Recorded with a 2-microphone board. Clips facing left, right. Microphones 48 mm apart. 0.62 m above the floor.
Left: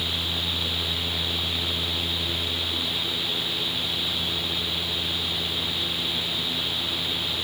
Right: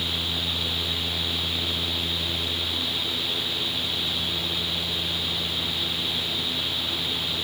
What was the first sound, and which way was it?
Only background noise.